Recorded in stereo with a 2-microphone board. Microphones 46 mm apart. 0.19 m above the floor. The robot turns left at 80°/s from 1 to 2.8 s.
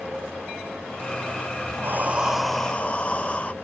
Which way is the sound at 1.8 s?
130° right.